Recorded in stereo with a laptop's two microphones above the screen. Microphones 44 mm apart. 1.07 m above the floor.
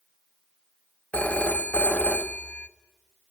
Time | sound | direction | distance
1.1 | a phone ringing | 35° left (ahead or behind) | 0.6 m